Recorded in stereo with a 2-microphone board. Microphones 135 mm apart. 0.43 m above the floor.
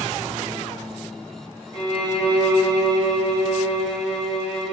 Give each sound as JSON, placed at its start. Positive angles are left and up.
{"t": 1.7, "sound": "a violin", "side_deg": 55, "distance_m": 1.5}